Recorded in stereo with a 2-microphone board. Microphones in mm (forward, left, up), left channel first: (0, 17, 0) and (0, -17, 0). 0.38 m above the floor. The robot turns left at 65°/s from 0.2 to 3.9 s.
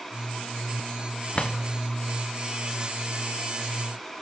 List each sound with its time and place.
1.4 s a drawer: 30° left (ahead or behind), 1.3 m; by 1.6 s 45° left (ahead or behind), 1.3 m